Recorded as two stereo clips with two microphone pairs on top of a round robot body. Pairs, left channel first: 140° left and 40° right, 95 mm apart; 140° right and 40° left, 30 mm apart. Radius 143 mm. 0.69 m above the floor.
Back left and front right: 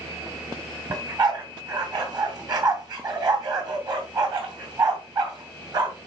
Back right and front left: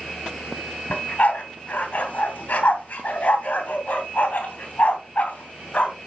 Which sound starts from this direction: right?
A dog barking, at 0.9 s.